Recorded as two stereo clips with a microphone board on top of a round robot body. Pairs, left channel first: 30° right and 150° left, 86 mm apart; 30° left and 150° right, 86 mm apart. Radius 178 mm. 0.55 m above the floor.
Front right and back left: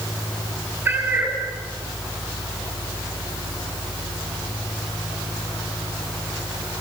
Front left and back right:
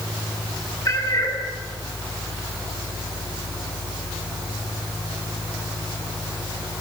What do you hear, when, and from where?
0.8 s a cat meowing: 75° left, 4.5 m